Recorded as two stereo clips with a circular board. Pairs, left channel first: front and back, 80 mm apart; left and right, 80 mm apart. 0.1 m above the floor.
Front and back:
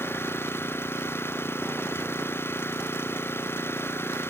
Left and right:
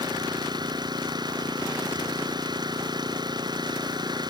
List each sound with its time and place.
0.0 s an engine running: 60° right